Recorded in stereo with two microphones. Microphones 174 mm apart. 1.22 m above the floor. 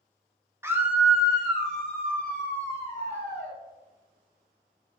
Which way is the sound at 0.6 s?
15° right (ahead or behind).